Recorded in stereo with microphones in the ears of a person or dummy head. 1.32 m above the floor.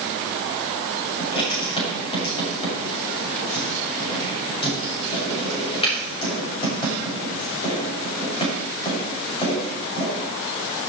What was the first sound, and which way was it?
Writing, 30° left (ahead or behind).